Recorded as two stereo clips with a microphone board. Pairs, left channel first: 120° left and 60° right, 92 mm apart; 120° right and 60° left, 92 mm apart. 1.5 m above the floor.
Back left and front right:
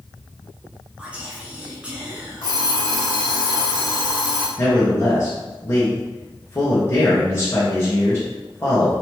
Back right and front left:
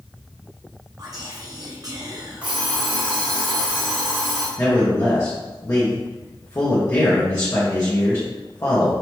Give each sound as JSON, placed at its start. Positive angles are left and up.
{"t": 1.0, "sound": "whispering", "azimuth_deg": 15, "distance_m": 0.7}
{"t": 2.4, "sound": "an alarm clock", "azimuth_deg": 130, "distance_m": 1.8}
{"t": 4.6, "sound": "a man speaking", "azimuth_deg": 180, "distance_m": 1.5}